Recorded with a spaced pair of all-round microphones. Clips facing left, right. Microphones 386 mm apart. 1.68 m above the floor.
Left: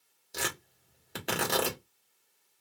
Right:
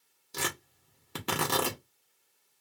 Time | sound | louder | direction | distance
0.3 | tearing paper | right 1 dB | 15° right (ahead or behind) | 1.3 m